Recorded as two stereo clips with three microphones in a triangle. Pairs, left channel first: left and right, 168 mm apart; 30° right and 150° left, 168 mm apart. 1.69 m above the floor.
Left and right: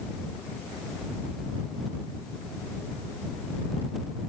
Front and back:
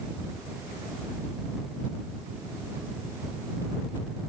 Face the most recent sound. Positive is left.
No sound to turn to.